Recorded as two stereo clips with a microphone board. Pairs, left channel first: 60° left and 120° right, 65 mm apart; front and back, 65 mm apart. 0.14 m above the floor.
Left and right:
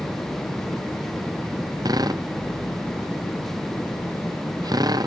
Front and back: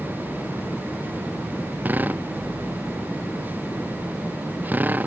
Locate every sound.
1.9 s a drill: 115° right